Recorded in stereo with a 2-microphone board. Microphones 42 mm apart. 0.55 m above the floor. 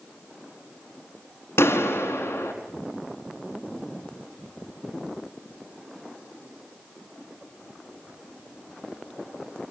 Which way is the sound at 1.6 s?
85° left.